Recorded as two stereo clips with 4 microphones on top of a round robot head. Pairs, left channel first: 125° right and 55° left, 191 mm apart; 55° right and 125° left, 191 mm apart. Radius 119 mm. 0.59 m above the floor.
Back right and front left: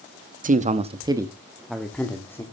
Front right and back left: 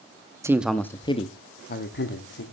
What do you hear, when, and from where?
0.4 s a man speaking: 55° left, 1.0 m; by 2.4 s 50° right, 1.8 m